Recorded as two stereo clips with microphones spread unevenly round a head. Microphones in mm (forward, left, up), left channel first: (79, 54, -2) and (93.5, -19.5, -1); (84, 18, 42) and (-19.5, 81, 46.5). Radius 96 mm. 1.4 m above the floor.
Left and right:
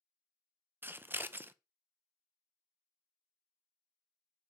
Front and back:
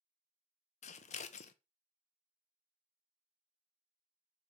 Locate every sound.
0.8 s scissors: 25° right, 0.6 m